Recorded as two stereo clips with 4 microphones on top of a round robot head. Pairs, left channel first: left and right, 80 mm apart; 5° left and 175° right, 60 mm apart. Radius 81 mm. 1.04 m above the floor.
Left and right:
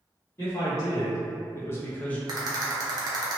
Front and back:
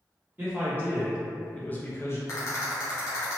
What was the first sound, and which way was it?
A man speaking, 135° left.